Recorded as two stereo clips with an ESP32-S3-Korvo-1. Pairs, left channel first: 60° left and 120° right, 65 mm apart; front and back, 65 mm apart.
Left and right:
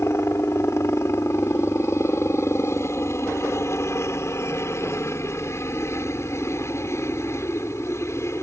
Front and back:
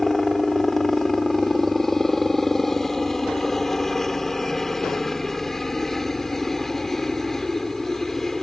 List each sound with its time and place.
0.0 s a helicopter: 80° left